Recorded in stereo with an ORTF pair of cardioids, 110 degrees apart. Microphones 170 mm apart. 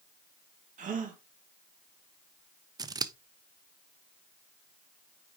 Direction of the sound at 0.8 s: 50° right.